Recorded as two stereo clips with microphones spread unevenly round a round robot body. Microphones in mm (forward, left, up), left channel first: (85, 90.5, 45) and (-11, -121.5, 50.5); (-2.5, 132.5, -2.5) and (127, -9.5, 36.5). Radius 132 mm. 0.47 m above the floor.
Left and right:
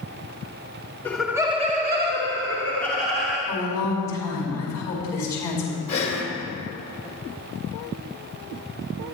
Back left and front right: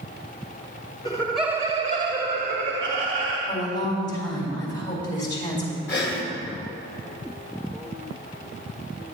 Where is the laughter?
140° left, 0.9 m; by 3.4 s 85° right, 2 m.